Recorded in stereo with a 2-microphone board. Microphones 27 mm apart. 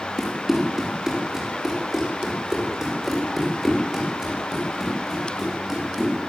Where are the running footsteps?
20° right (ahead or behind), 7 m; by 6.2 s 15° right (ahead or behind), 14.5 m.